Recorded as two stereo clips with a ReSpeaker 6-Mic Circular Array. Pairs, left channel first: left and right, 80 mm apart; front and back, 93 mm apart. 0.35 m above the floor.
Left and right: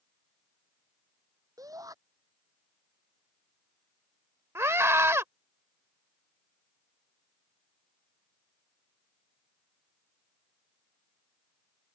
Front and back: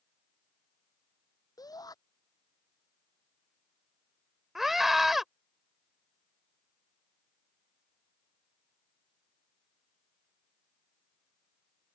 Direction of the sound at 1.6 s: 45° right.